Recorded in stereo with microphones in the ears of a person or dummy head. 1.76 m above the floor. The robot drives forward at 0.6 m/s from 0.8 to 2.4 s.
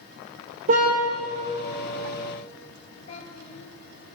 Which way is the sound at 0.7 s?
40° right (ahead or behind).